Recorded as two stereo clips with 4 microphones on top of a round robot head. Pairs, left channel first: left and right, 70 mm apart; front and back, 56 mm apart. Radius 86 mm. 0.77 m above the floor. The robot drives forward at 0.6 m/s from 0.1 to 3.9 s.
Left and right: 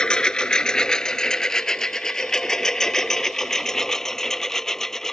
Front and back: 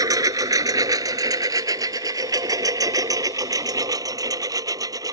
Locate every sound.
0.0 s a lawn mower: 170° left; by 5.1 s 175° left